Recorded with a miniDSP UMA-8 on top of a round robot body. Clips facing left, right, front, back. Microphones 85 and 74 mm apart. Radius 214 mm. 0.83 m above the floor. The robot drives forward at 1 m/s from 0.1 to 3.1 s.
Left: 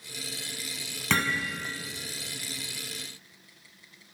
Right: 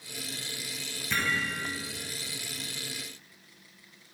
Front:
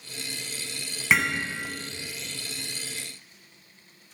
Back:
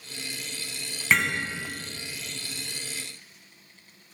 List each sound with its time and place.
1.1 s hammering: 80° left, 5.5 m; by 1.4 s 85° left, 5.5 m